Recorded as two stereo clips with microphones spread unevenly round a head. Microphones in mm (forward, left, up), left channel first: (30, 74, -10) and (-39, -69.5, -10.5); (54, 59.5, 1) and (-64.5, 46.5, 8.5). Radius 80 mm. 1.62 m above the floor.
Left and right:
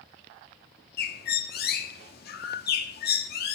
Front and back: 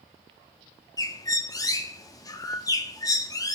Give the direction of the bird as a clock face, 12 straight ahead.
10 o'clock.